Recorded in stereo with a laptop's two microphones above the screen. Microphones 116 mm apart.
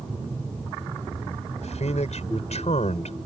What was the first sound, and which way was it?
A man speaking, 75° left (ahead or behind).